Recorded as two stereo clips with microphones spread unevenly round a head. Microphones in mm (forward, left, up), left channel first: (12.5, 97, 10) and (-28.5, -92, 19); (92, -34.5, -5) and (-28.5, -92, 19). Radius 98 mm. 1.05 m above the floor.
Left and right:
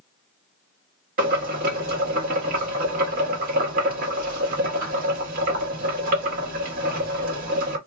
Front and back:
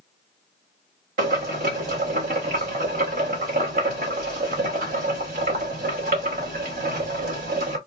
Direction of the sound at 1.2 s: 150° right.